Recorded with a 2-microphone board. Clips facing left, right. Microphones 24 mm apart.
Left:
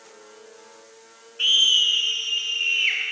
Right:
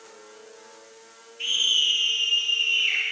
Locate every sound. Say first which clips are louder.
1.4 s a scream: left 5 dB; 55° left (ahead or behind), 2.5 m; by 3.0 s 45° left (ahead or behind), 4 m